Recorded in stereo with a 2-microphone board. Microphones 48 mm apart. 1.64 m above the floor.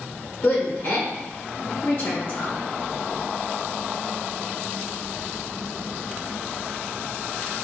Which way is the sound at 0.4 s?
55° left (ahead or behind).